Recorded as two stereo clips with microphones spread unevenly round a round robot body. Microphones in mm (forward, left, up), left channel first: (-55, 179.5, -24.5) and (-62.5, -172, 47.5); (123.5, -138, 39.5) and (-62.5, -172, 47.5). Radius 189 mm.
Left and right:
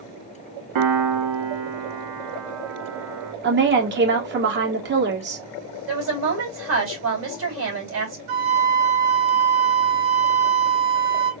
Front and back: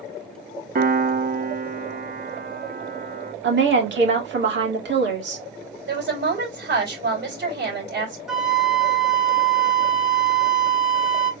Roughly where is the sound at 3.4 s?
Behind right.